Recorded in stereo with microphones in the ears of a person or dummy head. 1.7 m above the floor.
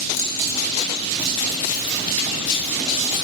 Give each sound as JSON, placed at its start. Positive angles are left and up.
{"t": 0.1, "sound": "keys jangling", "side_deg": 85, "distance_m": 7.0}